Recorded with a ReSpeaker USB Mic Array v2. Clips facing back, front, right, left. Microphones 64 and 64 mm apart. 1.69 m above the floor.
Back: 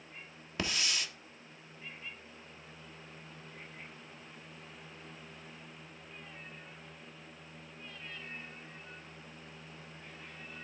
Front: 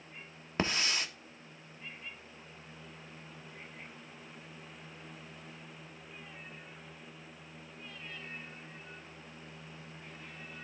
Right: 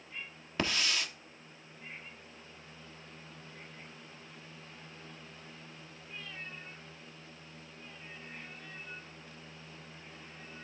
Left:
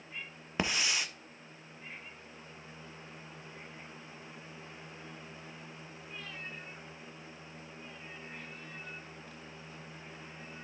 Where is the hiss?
30° left, 1.0 m.